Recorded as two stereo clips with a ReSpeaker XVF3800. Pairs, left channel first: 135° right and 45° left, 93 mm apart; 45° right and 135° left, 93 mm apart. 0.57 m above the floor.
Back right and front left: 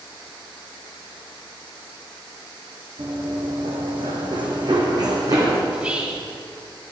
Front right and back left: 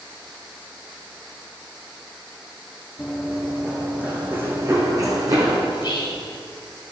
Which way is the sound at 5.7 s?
25° right.